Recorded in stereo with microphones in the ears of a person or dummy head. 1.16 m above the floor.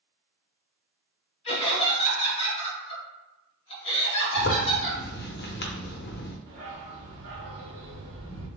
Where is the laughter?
35° left (ahead or behind), 1.7 m.